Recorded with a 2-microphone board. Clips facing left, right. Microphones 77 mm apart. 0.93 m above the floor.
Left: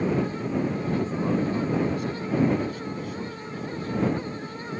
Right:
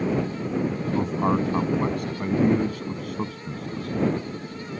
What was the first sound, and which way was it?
A man speaking, 55° right (ahead or behind).